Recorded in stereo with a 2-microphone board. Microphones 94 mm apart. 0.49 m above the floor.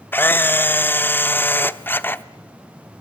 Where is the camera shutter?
20° left (ahead or behind), 0.6 m.